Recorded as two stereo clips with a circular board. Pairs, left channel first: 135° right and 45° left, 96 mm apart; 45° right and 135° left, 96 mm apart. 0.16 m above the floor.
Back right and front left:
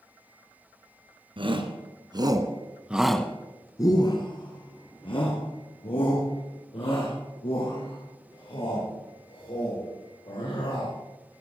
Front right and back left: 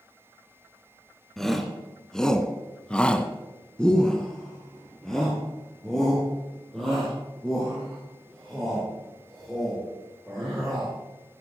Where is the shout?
40° left, 2 m; by 10.9 s 130° right, 9 m.